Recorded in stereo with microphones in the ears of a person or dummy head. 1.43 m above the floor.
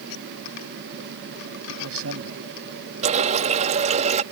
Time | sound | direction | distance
1.7 | a man speaking | 80° right | ?
3.0 | a running tap | 40° right (ahead or behind) | ?